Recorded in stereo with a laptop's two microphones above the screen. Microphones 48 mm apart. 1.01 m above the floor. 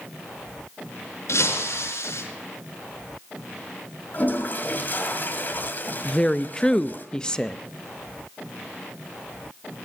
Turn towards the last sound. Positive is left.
turn(degrees=20)  # may be behind; listen again after turning